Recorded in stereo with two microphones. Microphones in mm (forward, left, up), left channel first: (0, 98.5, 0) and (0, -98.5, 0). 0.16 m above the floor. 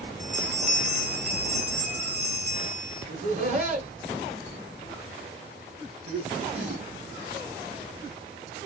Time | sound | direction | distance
0.2 | a bell | 50° right (ahead or behind) | 2 m
3.1 | laughter | 40° right (ahead or behind) | 2.0 m